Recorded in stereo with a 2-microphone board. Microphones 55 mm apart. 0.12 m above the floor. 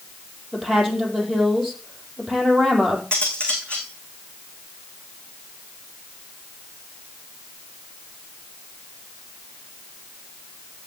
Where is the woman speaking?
Centre (ahead or behind), 4.5 m.